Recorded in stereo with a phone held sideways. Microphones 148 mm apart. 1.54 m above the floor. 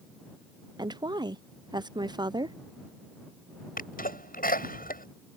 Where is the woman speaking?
30° right (ahead or behind).